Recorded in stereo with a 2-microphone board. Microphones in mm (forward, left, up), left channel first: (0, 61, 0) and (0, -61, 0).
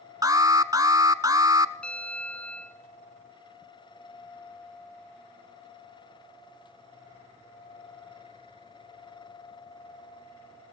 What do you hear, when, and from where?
0.2 s an alarm: 30° right (ahead or behind), 0.9 m
1.8 s a bell: 10° left (ahead or behind), 1.8 m